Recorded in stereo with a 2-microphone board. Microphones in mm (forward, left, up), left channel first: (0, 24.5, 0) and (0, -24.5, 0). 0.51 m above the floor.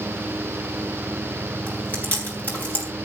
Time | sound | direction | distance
1.7 | chewing | 35° left (ahead or behind) | 5 m